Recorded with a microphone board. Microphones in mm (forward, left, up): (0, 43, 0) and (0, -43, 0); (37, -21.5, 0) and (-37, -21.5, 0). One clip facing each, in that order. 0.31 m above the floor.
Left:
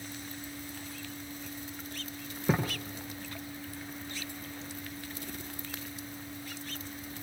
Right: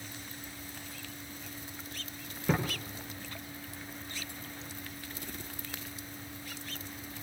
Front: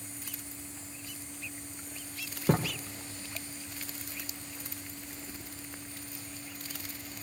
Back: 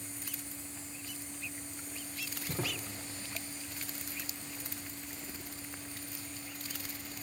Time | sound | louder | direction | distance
2.5 | a thud | left 1 dB, front 10 dB | 15° left | 8.5 m